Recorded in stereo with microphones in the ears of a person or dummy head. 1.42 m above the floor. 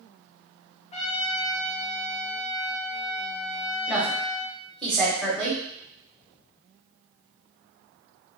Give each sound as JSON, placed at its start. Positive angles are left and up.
{"t": 0.9, "sound": "a trumpet", "side_deg": 35, "distance_m": 0.5}
{"t": 3.9, "sound": "a woman speaking", "side_deg": 5, "distance_m": 0.9}